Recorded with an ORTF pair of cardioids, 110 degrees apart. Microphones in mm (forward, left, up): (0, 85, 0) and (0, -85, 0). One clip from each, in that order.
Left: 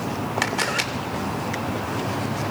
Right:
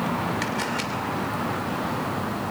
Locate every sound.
0.4 s a camera shutter: 40° left, 2.5 m